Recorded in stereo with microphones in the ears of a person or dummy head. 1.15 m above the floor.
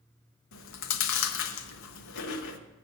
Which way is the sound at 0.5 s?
70° left (ahead or behind).